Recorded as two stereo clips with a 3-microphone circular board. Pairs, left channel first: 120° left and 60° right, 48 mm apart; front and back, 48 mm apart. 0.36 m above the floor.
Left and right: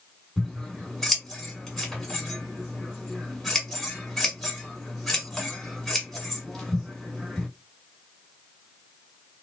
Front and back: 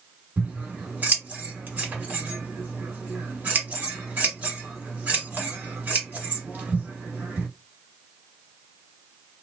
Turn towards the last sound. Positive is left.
turn(degrees=-160)